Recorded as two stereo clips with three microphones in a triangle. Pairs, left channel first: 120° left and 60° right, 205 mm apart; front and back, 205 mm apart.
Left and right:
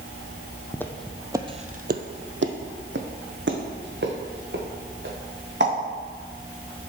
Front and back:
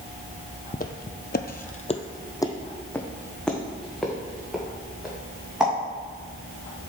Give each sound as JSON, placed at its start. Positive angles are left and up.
{"t": 0.7, "sound": "footsteps", "azimuth_deg": 45, "distance_m": 0.7}